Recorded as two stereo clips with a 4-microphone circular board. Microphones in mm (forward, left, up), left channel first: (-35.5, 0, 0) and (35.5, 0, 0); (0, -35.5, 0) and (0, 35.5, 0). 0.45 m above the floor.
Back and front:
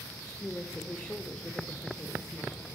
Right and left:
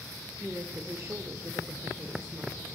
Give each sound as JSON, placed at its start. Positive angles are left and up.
{"t": 0.4, "sound": "a woman speaking", "azimuth_deg": 115, "distance_m": 1.0}